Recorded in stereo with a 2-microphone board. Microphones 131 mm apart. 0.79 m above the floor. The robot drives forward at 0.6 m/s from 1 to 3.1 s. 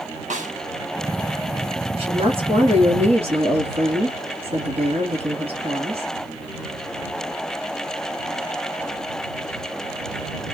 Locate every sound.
0.3 s a snare drum: 70° right (ahead or behind), 0.7 m
1.9 s a woman speaking: 45° right (ahead or behind), 1.5 m; by 6.1 s 50° right (ahead or behind), 1.4 m